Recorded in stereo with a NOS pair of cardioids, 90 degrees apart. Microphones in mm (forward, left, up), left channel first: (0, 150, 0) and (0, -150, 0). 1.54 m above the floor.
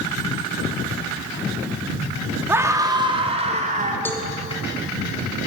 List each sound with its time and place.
2.5 s a scream: 10° right, 4 m; by 4.0 s 25° right, 4.5 m
4.0 s a cowbell: 5° left, 3 m